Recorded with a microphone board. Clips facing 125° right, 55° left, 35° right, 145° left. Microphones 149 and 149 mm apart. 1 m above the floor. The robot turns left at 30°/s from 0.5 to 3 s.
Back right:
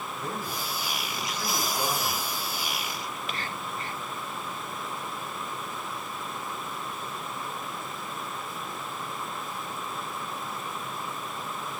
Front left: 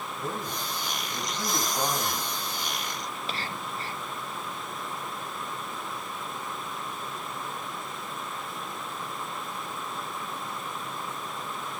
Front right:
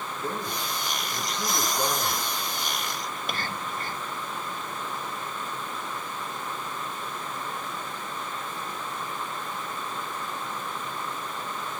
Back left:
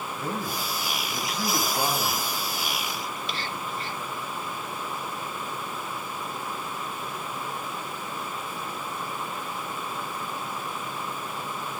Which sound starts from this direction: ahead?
Whispering, at 3.1 s.